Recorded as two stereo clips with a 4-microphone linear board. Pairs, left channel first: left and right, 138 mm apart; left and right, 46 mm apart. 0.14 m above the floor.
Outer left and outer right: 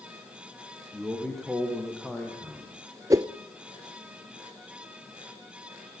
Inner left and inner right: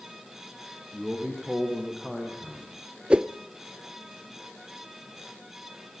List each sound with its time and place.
0.9 s a man speaking: centre (ahead or behind), 5.5 m
3.1 s a whoosh: 25° right (ahead or behind), 0.7 m